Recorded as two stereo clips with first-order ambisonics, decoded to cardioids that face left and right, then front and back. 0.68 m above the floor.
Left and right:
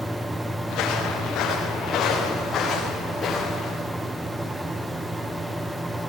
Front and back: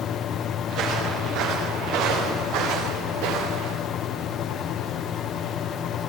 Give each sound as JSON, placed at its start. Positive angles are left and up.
{"t": 0.7, "sound": "footsteps", "azimuth_deg": 135, "distance_m": 7.5}